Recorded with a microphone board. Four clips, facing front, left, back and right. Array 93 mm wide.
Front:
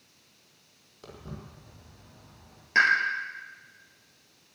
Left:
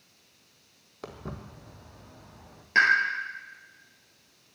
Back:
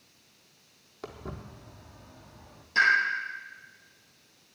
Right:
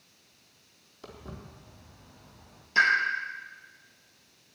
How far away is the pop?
About 6.5 m.